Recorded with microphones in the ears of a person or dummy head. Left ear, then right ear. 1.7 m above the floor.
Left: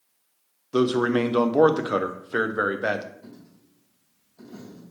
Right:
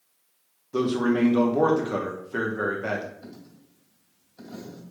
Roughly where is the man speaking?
Left.